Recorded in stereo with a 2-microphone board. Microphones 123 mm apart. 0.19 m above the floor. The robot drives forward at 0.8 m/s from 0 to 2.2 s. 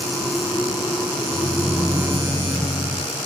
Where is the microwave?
55° left (ahead or behind), 7.5 m; by 3.0 s 50° left (ahead or behind), 8 m.